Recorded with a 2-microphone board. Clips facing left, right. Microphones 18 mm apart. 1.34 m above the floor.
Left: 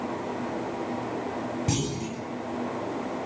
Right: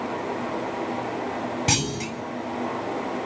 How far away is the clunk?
About 4 m.